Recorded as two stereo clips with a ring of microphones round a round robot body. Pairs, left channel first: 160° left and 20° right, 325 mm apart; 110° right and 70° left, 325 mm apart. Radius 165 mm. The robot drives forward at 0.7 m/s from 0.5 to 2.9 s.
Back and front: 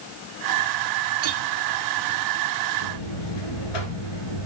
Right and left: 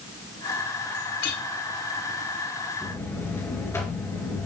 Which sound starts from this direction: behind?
A buzzer, at 2.8 s.